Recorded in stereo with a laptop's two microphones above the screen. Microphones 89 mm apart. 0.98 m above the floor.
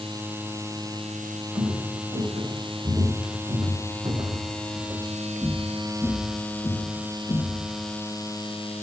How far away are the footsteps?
About 5 m.